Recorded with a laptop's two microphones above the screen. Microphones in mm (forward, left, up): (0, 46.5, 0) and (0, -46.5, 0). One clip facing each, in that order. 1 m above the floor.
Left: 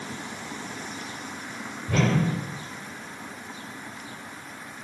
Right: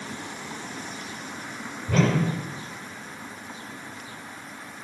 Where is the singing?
I don't hear singing.